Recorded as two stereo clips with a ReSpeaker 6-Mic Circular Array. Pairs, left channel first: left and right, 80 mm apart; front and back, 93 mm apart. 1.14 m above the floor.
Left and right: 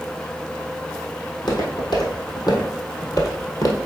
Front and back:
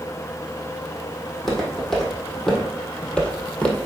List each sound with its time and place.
1.3 s footsteps: 85° left, 2.5 m; by 3.9 s 65° left, 1.5 m